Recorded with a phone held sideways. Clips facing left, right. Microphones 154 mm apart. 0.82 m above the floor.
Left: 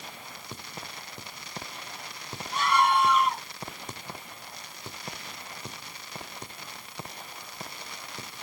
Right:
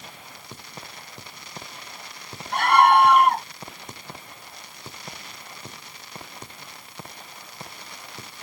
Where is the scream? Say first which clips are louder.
Right 7 dB; 60° right (ahead or behind).